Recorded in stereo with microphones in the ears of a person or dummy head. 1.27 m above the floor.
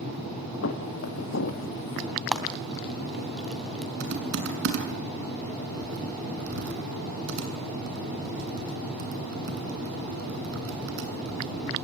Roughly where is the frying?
Centre.